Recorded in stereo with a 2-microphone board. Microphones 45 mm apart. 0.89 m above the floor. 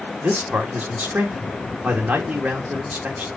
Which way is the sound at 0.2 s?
30° right (ahead or behind).